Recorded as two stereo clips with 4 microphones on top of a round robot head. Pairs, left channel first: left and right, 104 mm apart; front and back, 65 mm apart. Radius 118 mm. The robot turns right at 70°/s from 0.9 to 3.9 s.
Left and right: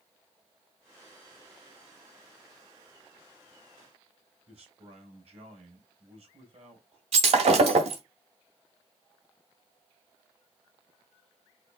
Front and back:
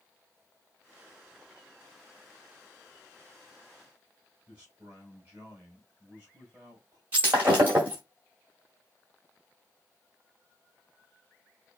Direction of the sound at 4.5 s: 115° right.